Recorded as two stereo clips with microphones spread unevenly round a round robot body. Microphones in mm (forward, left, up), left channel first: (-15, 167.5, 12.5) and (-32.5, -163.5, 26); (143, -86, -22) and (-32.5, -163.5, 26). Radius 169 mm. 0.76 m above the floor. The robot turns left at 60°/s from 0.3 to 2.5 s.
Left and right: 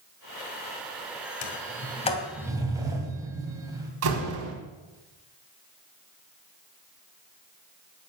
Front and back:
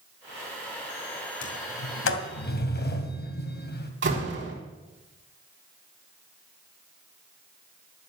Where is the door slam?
140° right, 4 m.